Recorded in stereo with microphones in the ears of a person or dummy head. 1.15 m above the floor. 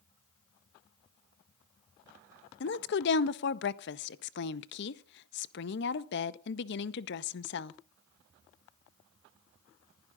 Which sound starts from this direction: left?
A woman speaking, at 2.6 s.